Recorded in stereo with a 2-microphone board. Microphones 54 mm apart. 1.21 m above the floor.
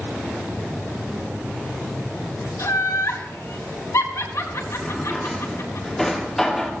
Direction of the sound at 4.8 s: 5° left (ahead or behind).